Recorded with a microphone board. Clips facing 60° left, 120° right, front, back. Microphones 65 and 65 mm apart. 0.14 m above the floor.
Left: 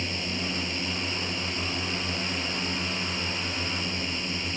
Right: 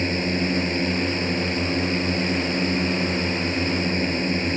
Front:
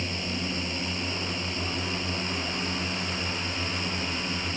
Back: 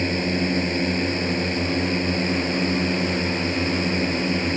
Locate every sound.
0.0 s a drone: 155° right